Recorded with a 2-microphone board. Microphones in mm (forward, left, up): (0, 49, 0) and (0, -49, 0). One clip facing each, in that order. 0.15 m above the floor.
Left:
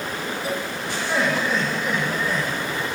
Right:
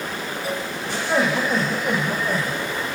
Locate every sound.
0.9 s laughter: 20° right (ahead or behind), 7 m